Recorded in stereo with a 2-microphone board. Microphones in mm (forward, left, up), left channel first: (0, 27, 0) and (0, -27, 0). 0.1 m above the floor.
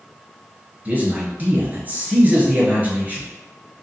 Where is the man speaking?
30° right (ahead or behind), 1.4 m.